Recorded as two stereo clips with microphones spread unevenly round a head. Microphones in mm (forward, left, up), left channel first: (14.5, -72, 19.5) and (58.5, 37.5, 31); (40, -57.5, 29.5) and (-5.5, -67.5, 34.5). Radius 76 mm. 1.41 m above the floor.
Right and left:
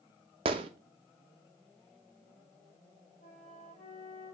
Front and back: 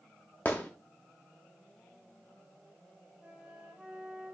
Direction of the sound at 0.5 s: 85° left.